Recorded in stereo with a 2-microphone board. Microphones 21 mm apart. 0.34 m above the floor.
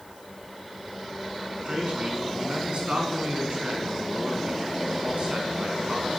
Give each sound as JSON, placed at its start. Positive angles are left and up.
{"t": 1.6, "sound": "a man speaking", "side_deg": -60, "distance_m": 4.0}